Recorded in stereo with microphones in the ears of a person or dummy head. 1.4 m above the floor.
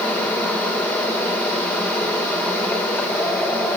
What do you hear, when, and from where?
0.0 s a fan: 10° left (ahead or behind), 4.5 m